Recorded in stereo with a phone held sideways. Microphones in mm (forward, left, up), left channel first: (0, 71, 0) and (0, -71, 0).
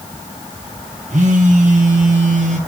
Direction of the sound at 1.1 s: 60° right (ahead or behind).